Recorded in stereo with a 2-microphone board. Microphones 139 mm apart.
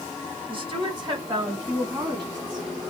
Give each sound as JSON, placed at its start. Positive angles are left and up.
{"t": 0.5, "sound": "a woman speaking", "side_deg": -40, "distance_m": 1.7}